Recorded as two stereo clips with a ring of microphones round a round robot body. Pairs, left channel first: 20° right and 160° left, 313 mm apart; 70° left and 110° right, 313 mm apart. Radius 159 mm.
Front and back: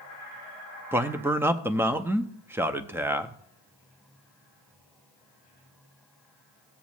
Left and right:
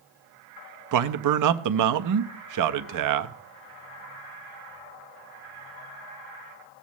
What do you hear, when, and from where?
0.9 s a man speaking: 120° right, 0.7 m